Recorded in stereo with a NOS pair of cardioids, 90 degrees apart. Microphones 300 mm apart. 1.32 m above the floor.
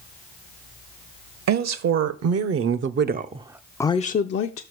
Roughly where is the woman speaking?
Right.